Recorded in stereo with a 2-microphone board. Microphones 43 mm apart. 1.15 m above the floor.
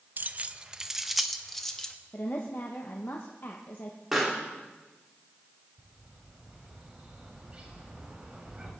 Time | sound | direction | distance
0.2 | keys jangling | 45° right (ahead or behind) | 0.6 m
2.1 | a woman speaking | 60° left (ahead or behind) | 1.3 m
4.1 | a pop | 5° right (ahead or behind) | 3.5 m
5.8 | a bird | 25° right (ahead or behind) | 3.5 m